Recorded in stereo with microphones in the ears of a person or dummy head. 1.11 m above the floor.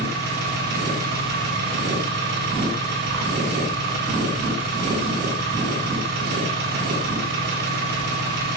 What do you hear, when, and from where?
0.0 s an engine running: 50° right (ahead or behind), 3 m